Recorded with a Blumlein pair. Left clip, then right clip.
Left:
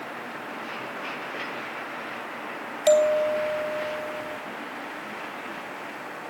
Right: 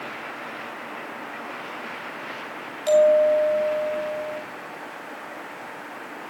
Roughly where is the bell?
Ahead left.